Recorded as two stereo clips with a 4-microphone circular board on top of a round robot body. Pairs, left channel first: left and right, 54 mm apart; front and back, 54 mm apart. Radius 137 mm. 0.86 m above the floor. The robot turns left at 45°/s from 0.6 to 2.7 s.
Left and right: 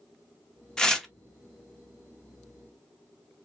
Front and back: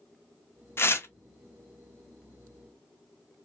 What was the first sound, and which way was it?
Tearing paper, 15° left.